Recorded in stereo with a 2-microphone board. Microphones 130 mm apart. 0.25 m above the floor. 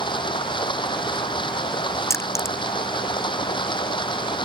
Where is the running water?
40° left (ahead or behind).